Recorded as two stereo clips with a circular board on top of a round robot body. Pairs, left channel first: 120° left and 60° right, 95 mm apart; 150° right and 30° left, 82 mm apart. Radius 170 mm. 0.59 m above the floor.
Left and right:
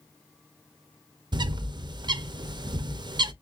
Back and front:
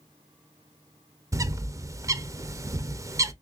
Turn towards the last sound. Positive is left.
turn(degrees=-20)